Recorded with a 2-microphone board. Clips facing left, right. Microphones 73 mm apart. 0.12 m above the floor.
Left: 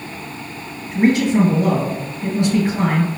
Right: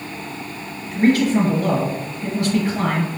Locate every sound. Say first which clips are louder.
0.9 s a man speaking: left 1 dB; 20° left (ahead or behind), 1.9 m